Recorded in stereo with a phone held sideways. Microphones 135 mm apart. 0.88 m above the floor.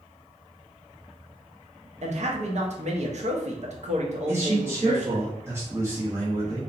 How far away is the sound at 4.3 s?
About 0.8 m.